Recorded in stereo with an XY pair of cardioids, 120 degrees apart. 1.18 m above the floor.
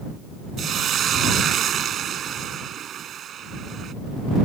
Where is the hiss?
50° right.